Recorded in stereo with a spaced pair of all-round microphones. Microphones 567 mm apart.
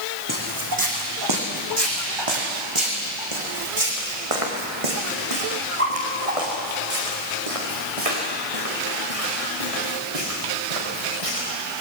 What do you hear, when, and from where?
0.3 s footsteps: 35° right (ahead or behind), 4 m; by 11.5 s 70° right (ahead or behind), 6.5 m